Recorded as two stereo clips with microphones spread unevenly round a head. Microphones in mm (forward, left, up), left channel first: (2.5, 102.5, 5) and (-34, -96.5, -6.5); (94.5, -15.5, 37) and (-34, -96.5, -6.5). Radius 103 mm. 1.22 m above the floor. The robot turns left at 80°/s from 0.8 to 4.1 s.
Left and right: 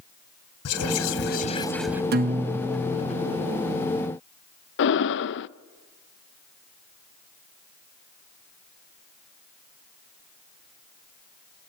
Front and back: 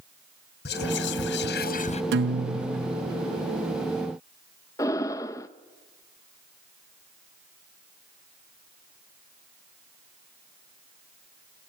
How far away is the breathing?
About 0.5 m.